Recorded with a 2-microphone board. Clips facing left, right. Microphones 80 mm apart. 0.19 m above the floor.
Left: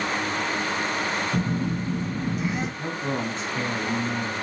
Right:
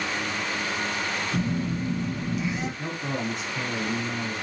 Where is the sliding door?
I don't hear a sliding door.